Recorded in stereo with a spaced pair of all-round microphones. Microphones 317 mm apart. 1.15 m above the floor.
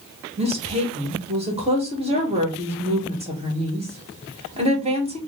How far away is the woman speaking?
About 1.5 m.